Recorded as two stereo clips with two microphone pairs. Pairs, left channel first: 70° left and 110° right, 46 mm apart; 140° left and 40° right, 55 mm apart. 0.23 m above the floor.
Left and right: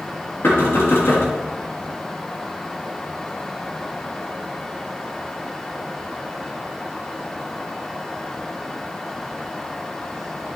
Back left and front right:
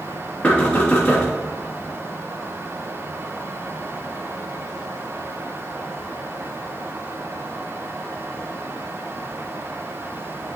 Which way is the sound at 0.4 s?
70° left.